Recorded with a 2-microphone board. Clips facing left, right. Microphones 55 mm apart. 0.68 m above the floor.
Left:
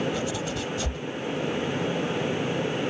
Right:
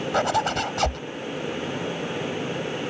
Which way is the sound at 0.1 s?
70° right (ahead or behind).